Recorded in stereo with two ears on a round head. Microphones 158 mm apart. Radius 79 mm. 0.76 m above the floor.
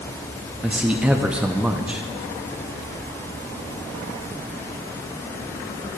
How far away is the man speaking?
About 0.7 m.